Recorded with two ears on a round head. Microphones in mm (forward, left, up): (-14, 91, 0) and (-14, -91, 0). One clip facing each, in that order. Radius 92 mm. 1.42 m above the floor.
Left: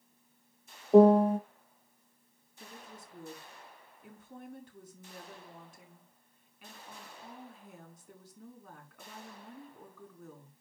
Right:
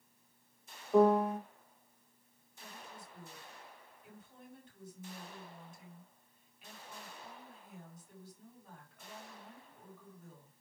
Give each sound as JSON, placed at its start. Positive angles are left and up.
{"t": 0.9, "sound": "a piano", "side_deg": 25, "distance_m": 0.7}
{"t": 2.6, "sound": "a woman speaking", "side_deg": 55, "distance_m": 5.0}